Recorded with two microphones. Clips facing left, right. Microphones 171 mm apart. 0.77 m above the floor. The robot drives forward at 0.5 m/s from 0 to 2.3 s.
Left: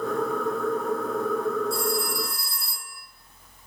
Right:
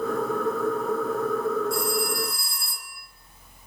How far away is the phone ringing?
About 4 m.